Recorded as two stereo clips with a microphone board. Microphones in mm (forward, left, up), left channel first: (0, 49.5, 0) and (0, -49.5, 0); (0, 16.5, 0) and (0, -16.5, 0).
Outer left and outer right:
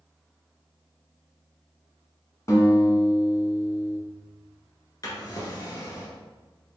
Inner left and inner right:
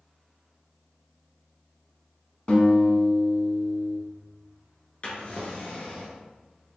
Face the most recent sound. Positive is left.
turn(degrees=40)  # may be behind; listen again after turning